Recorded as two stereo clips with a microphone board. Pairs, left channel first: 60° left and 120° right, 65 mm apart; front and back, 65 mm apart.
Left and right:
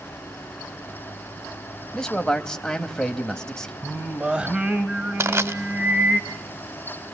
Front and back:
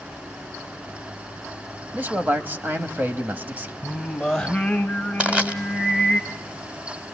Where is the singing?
70° right, 1.1 m.